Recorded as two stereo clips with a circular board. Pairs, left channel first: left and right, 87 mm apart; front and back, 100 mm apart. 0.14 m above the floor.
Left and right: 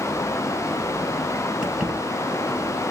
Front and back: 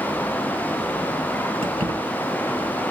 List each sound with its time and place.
1.6 s keys jangling: 170° right, 1.9 m